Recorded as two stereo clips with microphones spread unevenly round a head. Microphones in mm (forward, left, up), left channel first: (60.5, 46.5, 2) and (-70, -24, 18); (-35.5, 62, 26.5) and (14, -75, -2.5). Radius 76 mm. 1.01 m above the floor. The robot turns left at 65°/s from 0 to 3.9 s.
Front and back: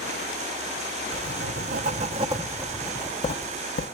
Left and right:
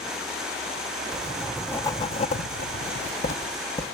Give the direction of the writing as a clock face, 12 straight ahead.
4 o'clock.